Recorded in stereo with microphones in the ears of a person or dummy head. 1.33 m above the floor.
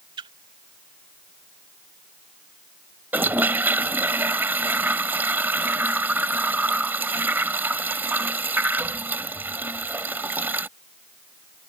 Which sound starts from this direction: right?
A splash, at 0.2 s.